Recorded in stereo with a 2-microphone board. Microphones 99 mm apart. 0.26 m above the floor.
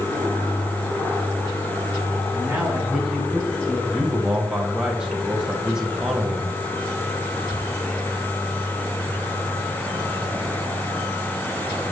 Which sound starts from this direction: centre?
A man speaking, at 3.9 s.